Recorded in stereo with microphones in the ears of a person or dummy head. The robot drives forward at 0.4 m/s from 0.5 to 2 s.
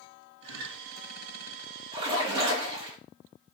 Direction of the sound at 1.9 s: 30° right (ahead or behind).